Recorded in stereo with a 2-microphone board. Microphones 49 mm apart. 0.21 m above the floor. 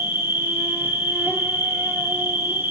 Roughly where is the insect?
Right.